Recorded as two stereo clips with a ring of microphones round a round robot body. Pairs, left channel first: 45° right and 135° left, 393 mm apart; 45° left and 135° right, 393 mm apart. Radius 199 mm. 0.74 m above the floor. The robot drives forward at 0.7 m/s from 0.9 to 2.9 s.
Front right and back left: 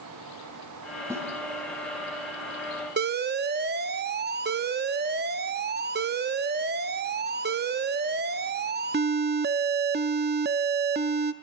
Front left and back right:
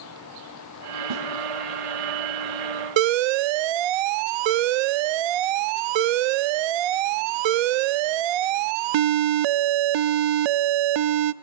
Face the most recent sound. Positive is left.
turn(degrees=-160)